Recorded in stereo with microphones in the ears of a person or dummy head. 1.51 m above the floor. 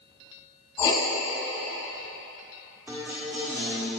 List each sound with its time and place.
0.8 s writing: 30° left (ahead or behind), 1.6 m
2.9 s a guitar: 5° right (ahead or behind), 1.8 m